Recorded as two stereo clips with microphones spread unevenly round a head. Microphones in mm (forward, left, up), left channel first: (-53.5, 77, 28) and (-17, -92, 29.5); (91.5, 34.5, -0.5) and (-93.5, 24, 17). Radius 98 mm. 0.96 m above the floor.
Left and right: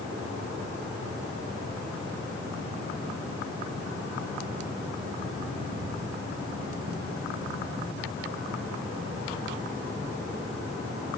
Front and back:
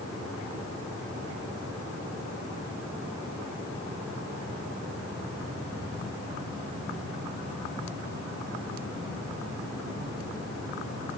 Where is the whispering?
No whispering in this recording.